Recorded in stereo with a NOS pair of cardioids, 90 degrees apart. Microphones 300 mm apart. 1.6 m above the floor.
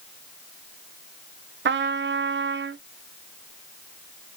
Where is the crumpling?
No crumpling in this recording.